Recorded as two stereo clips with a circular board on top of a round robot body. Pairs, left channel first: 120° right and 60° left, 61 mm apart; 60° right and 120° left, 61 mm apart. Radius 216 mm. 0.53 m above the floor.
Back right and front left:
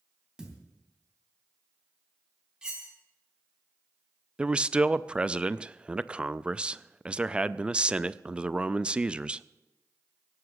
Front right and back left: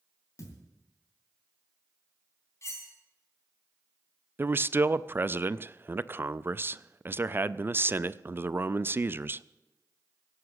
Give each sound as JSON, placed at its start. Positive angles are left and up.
{"t": 0.4, "sound": "a thud", "azimuth_deg": -20, "distance_m": 3.0}
{"t": 2.6, "sound": "cutlery clinking", "azimuth_deg": -20, "distance_m": 4.0}
{"t": 4.4, "sound": "a man speaking", "azimuth_deg": 120, "distance_m": 0.7}